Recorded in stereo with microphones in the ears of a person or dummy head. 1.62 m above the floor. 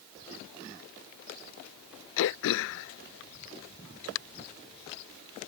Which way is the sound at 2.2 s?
65° left (ahead or behind).